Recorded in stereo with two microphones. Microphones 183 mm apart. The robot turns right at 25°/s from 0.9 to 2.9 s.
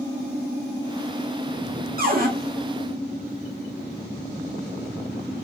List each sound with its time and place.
2.0 s a cupboard door: 55° right (ahead or behind), 0.7 m